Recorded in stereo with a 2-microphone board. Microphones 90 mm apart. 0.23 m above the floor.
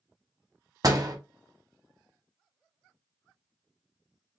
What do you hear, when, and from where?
0.8 s a door slam: 45° right (ahead or behind), 1.0 m